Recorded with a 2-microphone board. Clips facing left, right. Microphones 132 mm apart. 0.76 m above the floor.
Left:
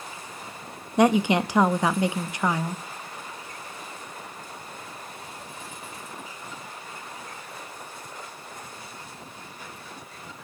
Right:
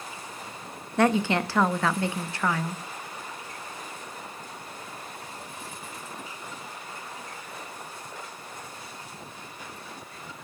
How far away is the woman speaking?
About 0.7 m.